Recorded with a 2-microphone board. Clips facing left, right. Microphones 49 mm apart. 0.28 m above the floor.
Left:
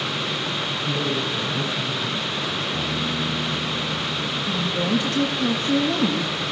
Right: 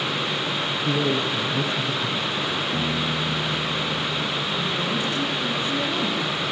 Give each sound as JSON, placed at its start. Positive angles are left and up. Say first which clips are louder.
{"t": 0.8, "sound": "a man speaking", "louder": "right 3 dB", "side_deg": -60, "distance_m": 8.0}
{"t": 2.7, "sound": "a piano", "louder": "right 1 dB", "side_deg": -50, "distance_m": 5.5}
{"t": 4.5, "sound": "a woman speaking", "louder": "left 2 dB", "side_deg": 55, "distance_m": 5.0}